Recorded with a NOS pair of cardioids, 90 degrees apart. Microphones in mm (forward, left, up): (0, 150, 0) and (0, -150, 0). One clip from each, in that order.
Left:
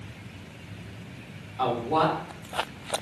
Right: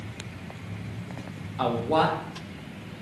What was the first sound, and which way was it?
A man speaking, 45° right.